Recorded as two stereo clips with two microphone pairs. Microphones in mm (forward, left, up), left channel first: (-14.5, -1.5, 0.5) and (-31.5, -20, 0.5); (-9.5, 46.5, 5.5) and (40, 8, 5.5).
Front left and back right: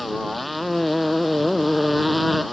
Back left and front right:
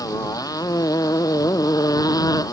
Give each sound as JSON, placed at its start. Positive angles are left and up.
{"t": 0.0, "sound": "a motorcycle", "azimuth_deg": 130}